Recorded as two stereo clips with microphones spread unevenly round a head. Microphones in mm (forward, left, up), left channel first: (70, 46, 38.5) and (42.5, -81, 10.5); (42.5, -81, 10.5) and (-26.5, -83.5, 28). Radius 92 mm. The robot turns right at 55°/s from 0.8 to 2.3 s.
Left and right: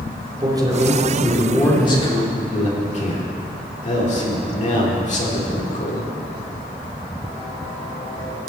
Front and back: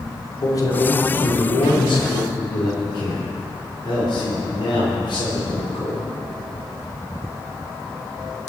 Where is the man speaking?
40° right, 3.5 m; by 6.1 s 45° left, 3.5 m.